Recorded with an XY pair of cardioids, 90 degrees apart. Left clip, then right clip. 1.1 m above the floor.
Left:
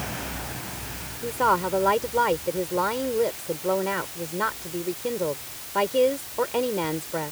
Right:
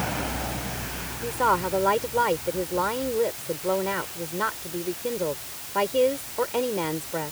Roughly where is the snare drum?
No snare drum in this recording.